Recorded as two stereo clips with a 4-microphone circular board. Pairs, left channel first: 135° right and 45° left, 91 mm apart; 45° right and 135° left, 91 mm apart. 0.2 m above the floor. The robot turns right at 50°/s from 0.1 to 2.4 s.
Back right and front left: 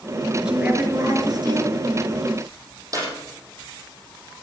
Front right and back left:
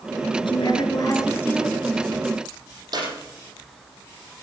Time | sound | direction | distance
0.4 | a woman speaking | 40° right | 3.5 m
2.9 | a clap | 95° left | 6 m